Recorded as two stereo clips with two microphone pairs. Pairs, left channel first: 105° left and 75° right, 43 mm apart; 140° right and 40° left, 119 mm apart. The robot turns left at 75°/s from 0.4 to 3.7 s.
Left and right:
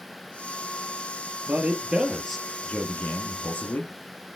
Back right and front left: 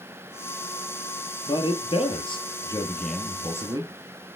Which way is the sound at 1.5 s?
100° right.